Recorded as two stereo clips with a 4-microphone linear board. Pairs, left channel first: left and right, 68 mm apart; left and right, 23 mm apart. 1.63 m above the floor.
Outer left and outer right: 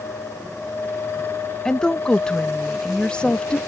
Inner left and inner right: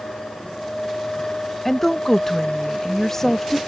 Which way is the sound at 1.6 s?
10° left (ahead or behind).